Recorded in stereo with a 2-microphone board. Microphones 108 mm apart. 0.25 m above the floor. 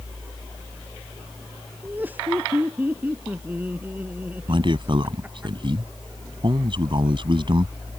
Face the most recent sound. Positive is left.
turn(degrees=-50)  # may be behind; listen again after turning